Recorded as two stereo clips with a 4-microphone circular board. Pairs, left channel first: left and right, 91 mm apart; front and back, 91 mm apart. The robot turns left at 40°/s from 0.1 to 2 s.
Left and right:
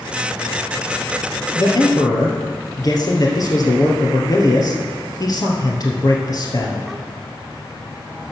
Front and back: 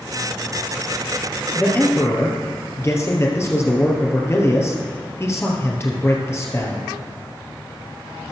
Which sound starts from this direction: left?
A man speaking, at 1.6 s.